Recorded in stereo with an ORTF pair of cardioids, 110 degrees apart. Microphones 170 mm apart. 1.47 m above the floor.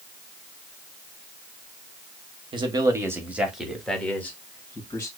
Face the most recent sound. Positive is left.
turn(degrees=20)